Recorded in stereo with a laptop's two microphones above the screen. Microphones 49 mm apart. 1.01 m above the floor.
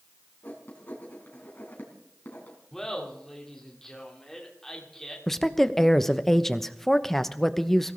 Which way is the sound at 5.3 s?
5° left (ahead or behind).